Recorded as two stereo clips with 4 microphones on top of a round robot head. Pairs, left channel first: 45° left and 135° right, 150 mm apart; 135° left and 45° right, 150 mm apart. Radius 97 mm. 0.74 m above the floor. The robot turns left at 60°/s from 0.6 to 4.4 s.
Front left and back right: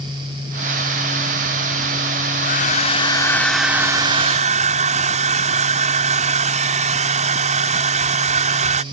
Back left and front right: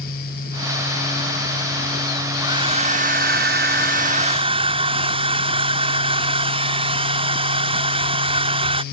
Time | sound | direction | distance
2.4 | a hair dryer | 25° left | ?